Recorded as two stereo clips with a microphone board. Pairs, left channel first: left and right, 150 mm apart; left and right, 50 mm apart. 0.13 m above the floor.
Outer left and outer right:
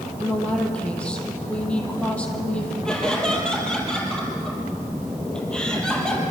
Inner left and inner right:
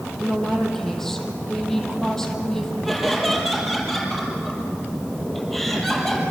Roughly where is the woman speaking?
Centre.